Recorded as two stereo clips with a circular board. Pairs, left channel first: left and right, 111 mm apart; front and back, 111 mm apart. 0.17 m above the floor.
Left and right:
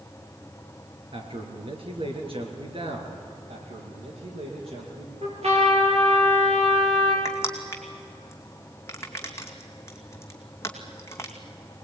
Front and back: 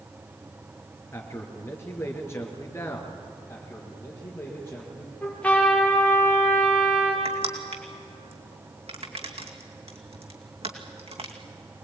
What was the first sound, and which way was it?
A man speaking, 65° right.